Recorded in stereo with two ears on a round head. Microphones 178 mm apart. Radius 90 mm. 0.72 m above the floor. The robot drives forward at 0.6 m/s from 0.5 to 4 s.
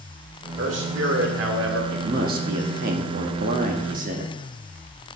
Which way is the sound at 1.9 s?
45° right (ahead or behind).